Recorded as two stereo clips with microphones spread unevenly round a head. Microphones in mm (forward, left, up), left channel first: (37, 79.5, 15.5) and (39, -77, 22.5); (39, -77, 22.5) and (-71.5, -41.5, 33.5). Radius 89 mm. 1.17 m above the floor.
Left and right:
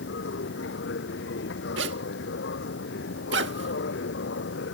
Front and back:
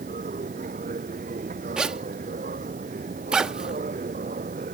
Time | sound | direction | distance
0.0 | a machine running | 120° left | ?
1.8 | a zipper | 115° right | ?